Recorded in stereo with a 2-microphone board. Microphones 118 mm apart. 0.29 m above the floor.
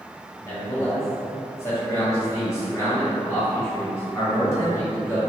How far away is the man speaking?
About 1.4 m.